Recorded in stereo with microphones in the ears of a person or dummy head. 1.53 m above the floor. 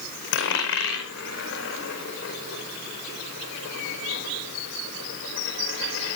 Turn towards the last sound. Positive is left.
turn(degrees=70)  # may be behind; listen again after turning